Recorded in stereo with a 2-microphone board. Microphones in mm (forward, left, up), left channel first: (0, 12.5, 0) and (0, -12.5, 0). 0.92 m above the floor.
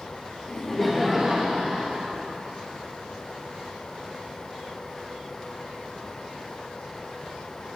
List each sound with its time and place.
0.5 s laughter: 25° left (ahead or behind), 0.8 m; by 2.2 s 50° right (ahead or behind), 1.2 m